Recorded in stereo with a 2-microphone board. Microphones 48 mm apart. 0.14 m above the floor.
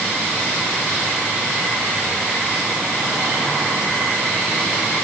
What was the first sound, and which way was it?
Only background noise.